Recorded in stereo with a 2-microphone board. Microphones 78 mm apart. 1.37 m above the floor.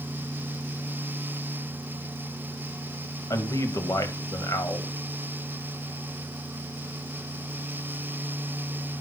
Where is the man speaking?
50° left (ahead or behind), 1.7 m.